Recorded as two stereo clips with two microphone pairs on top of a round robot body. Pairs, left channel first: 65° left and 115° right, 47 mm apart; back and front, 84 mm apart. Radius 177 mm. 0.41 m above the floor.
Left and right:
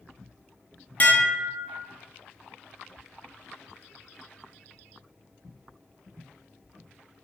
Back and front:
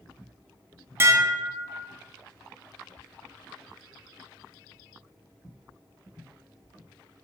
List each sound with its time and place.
1.0 s dishes clattering: 25° left, 0.6 m